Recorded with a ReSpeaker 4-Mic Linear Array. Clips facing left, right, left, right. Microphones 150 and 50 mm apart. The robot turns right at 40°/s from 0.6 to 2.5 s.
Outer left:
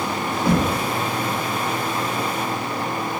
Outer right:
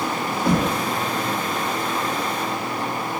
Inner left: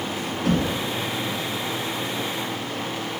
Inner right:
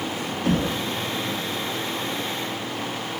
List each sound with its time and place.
0.5 s knocking: 5° left (ahead or behind), 2.5 m; by 0.8 s centre (ahead or behind), 2.5 m